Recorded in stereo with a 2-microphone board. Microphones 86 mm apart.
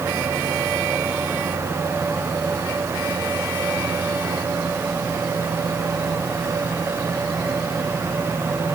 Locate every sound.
Only background noise.